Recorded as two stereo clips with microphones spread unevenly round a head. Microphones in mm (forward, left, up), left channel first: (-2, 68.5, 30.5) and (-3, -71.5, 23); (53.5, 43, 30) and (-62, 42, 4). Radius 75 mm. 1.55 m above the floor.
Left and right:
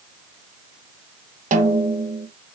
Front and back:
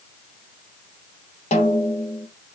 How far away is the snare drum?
About 0.8 m.